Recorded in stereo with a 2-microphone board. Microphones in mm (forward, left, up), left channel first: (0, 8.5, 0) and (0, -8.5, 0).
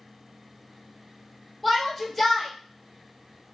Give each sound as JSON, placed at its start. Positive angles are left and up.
{"t": 1.6, "sound": "a shout", "side_deg": 5, "distance_m": 2.5}